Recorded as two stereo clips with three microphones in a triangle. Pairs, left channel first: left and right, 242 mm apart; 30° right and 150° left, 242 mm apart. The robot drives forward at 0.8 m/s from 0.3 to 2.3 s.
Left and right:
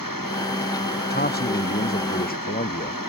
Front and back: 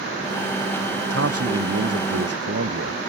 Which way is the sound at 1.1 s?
135° left.